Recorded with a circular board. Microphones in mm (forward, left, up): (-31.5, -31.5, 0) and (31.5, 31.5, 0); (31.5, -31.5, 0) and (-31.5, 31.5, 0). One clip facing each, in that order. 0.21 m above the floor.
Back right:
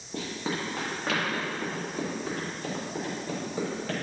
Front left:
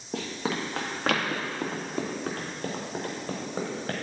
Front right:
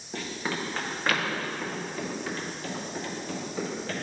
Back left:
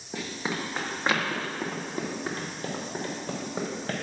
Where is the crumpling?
No crumpling in this recording.